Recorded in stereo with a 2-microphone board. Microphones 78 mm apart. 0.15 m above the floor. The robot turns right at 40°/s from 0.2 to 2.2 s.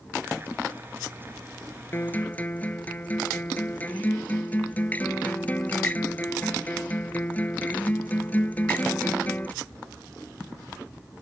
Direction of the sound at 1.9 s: 35° left (ahead or behind).